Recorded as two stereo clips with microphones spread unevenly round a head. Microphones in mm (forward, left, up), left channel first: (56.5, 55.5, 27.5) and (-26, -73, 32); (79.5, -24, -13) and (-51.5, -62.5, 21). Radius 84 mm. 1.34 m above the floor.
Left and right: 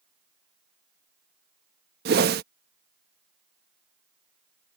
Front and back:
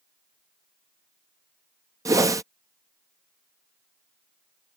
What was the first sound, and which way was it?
A whoosh, 100° right.